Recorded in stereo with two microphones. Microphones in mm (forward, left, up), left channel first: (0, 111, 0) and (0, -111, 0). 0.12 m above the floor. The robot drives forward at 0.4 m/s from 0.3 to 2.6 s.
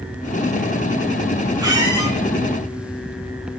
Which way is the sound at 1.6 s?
15° right (ahead or behind).